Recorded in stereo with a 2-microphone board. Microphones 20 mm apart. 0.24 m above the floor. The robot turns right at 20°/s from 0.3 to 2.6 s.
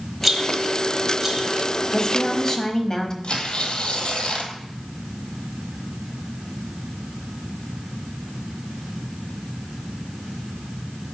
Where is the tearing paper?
60° left (ahead or behind), 1.4 m.